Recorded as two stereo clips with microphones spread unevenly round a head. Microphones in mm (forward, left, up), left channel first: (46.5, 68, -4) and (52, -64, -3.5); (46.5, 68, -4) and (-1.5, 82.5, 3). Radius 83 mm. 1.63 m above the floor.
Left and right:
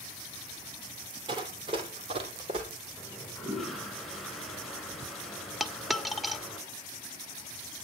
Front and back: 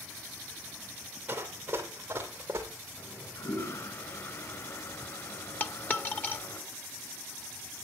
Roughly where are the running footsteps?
Behind right.